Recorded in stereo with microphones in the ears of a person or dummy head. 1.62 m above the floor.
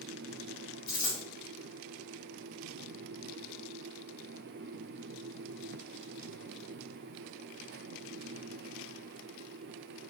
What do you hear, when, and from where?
0.9 s a dropped coin: 45° left (ahead or behind), 2.0 m